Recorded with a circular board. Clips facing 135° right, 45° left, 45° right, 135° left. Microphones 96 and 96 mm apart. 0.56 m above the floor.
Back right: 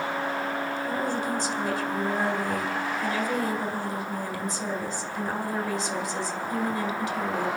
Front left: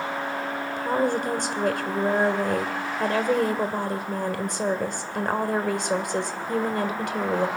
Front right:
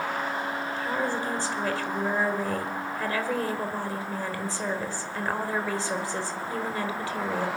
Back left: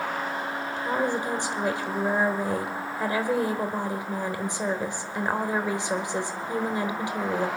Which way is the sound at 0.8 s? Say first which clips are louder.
Front left 4 dB, back left 4 dB; 65° left.